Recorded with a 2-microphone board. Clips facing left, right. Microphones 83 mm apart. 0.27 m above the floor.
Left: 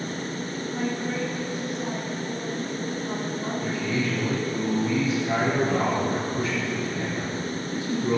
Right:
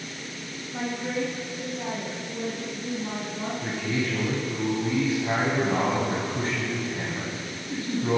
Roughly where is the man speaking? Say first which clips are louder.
Left 1 dB; right.